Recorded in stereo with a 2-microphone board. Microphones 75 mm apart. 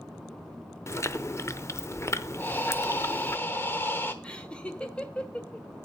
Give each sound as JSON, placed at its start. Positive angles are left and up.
{"t": 0.9, "sound": "chewing", "side_deg": 40, "distance_m": 0.6}
{"t": 2.4, "sound": "breathing", "side_deg": 30, "distance_m": 1.1}
{"t": 4.2, "sound": "laughter", "side_deg": 15, "distance_m": 1.3}